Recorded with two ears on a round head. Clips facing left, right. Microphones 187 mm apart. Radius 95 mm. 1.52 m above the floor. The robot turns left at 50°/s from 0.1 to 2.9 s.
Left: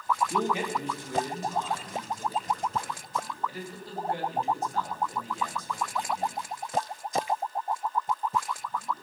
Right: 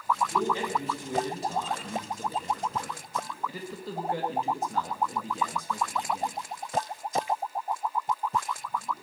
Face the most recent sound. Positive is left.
turn(degrees=-75)  # may be behind; listen again after turning